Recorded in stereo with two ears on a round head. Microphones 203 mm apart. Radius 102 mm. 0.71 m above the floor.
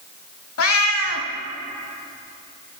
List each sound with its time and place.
0.6 s a cat meowing: 70° left (ahead or behind), 1.1 m